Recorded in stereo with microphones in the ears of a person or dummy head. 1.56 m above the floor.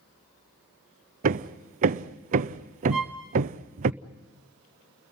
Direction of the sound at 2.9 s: Centre (ahead or behind).